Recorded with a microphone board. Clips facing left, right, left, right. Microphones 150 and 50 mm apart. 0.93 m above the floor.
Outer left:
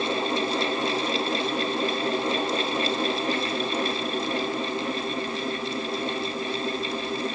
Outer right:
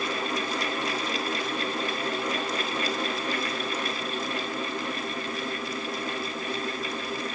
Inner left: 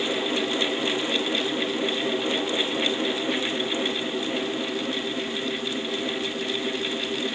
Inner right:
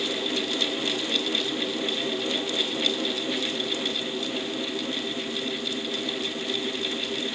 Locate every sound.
Only background noise.